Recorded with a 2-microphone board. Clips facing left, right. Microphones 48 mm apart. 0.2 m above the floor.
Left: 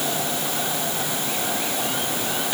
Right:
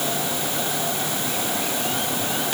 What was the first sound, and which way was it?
Only background noise.